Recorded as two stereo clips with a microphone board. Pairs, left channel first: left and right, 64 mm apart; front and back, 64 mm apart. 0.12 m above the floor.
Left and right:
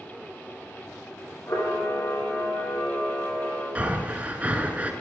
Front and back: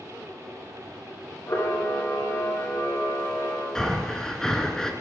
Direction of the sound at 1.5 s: 45° left.